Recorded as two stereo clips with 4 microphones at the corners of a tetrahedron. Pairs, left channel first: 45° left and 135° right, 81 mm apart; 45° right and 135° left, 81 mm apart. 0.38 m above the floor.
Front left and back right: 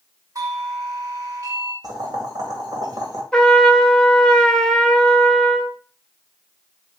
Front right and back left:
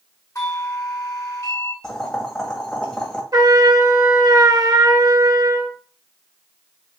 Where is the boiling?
125° right, 2 m.